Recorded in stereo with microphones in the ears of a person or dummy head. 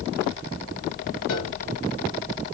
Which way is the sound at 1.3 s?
70° left (ahead or behind).